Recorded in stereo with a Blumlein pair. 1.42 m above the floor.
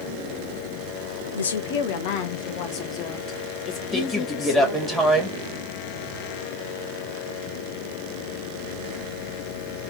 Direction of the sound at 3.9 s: Straight ahead.